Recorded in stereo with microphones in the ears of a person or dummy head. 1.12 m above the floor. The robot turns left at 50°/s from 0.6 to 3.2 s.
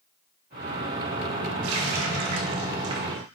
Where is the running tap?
85° right, 0.7 m; by 3.2 s 165° right, 0.7 m.